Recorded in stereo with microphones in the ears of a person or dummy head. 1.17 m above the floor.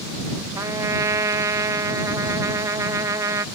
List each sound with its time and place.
0.6 s a trumpet: 20° right (ahead or behind)